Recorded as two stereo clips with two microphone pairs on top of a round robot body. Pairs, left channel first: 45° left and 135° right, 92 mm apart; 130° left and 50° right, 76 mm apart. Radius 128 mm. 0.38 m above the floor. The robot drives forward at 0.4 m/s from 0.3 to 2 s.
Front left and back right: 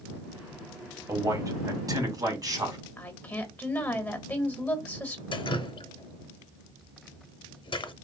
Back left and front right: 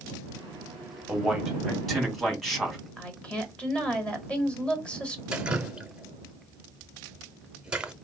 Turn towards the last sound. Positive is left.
turn(degrees=25)